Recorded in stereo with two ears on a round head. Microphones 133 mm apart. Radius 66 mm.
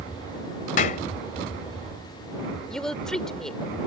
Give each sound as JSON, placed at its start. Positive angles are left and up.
{"t": 0.8, "sound": "a clap", "side_deg": 55}
{"t": 2.7, "sound": "a woman speaking", "side_deg": 5}